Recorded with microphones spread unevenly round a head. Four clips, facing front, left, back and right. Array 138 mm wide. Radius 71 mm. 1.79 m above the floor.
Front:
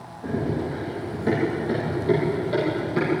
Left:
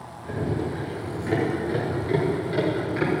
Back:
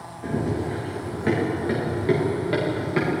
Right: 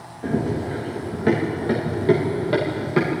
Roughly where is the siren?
I don't hear a siren.